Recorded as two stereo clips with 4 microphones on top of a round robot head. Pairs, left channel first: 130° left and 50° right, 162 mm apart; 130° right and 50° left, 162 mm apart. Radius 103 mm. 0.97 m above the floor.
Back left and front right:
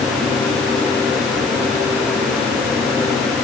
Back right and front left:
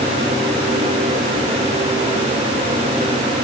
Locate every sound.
Only background noise.